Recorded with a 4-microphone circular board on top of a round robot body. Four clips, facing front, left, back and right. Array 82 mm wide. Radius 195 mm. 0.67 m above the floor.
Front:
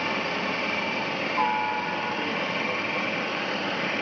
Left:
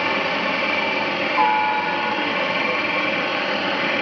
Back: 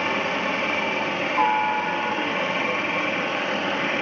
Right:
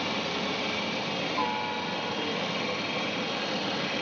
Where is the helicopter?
110° left.